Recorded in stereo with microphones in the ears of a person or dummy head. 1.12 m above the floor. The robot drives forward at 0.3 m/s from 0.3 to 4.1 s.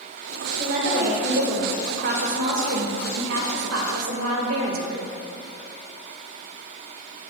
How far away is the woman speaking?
About 1.7 m.